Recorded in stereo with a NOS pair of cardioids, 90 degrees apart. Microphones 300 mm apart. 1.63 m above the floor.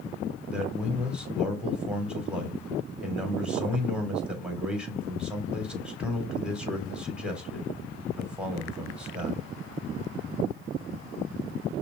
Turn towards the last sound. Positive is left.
turn(degrees=-5)